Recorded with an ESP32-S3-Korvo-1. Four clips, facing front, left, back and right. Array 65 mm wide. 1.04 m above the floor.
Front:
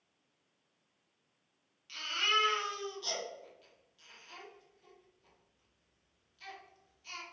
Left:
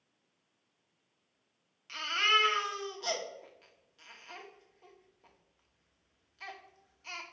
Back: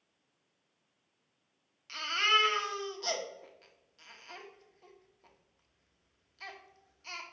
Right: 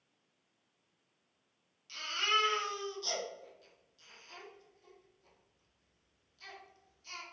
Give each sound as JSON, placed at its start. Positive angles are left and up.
{"t": 1.9, "sound": "a baby crying", "azimuth_deg": 135, "distance_m": 1.7}